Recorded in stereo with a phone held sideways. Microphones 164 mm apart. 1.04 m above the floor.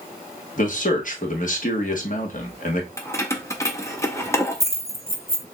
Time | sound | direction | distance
0.6 | a man speaking | 55° left (ahead or behind) | 1.1 m
3.0 | keys jangling | 20° left (ahead or behind) | 0.7 m